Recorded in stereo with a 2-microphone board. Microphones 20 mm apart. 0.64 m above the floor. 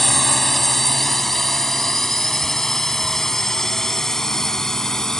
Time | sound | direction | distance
0.0 | a drone | centre (ahead or behind) | ?